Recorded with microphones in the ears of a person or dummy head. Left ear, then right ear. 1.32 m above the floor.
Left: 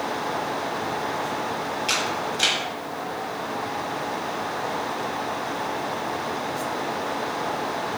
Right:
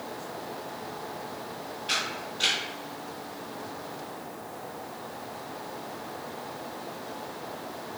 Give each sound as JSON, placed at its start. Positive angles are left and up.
{"t": 1.9, "sound": "a camera shutter", "side_deg": 80, "distance_m": 1.2}